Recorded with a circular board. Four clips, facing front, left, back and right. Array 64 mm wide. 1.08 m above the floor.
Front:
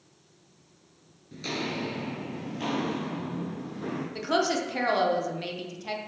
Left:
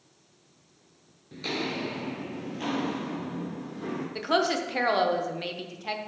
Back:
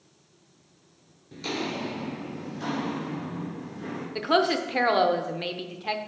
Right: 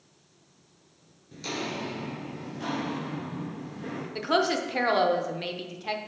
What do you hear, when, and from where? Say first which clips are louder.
1.3 s footsteps: left 2 dB, back 1 dB; 115° left, 1.1 m; by 4.0 s 25° left, 2.5 m
4.2 s a woman speaking: right 1 dB, back 4 dB; 175° left, 0.6 m